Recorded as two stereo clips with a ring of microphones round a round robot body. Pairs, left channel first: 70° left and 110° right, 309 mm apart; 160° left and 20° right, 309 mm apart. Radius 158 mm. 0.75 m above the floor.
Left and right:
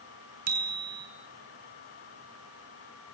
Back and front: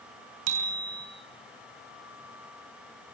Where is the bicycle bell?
50° right, 6 m.